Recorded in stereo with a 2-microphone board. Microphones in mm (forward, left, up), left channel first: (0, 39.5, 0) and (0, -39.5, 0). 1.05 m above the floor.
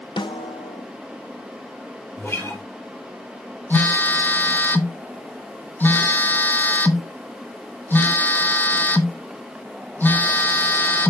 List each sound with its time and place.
0.2 s a snare drum: 80° left, 0.7 m
2.2 s a guitar: 30° left (ahead or behind), 3 m
3.7 s a phone buzzing: 25° left (ahead or behind), 0.8 m